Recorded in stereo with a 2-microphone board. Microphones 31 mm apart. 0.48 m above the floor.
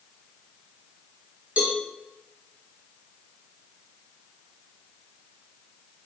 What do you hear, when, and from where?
1.6 s a cowbell: 55° right (ahead or behind), 0.9 m